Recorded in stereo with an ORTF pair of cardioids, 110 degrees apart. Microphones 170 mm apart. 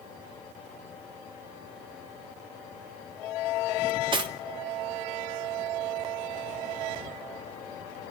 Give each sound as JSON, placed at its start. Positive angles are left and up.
{"t": 3.9, "sound": "cutlery clinking", "azimuth_deg": -30, "distance_m": 2.5}